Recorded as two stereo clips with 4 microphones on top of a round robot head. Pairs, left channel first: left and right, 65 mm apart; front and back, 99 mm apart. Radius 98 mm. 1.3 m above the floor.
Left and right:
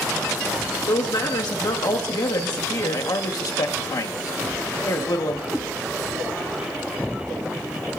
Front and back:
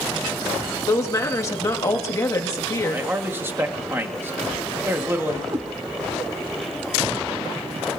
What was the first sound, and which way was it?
A woman speaking, 60° left.